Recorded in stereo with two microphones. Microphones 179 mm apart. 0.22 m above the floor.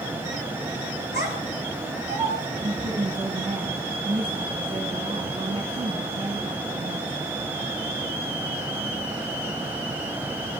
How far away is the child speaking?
About 2.5 m.